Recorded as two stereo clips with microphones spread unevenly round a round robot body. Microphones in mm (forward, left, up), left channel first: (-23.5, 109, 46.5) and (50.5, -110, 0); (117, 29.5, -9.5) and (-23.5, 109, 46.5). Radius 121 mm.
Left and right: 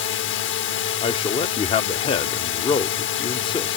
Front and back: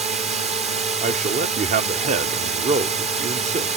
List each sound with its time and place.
0.0 s a drone: 100° left
1.0 s a man speaking: 175° left